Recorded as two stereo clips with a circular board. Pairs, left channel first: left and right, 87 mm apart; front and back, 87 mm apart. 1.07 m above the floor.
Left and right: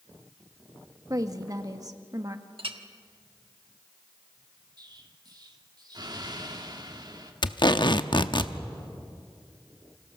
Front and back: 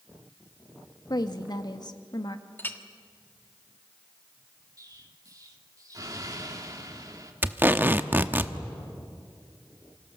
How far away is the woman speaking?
About 1.6 m.